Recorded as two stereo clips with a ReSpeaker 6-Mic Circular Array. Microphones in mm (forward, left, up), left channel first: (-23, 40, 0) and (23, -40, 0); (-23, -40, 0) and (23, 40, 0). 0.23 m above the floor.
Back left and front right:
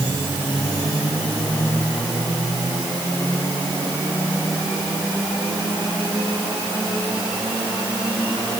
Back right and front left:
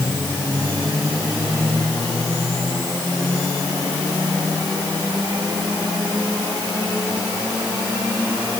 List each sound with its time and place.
Only background noise.